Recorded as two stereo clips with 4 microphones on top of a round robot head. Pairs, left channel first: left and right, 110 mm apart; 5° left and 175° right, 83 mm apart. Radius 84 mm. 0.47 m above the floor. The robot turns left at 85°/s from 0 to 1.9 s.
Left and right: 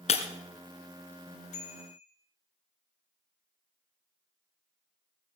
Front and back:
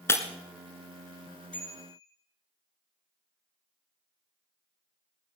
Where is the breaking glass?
65° left, 1.6 m; by 0.2 s 50° left, 1.6 m.